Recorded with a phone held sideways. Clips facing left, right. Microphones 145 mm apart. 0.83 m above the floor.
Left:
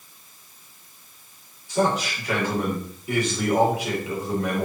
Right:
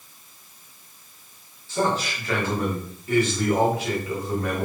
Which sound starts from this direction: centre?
A man speaking, at 1.7 s.